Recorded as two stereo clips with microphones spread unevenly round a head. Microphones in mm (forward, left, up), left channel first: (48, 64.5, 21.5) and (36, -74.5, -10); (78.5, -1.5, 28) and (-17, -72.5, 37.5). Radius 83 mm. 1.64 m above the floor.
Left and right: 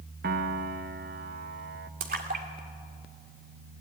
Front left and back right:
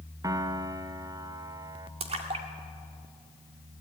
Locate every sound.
0.2 s a piano: 90° right, 0.9 m
2.0 s a splash: 130° right, 1.9 m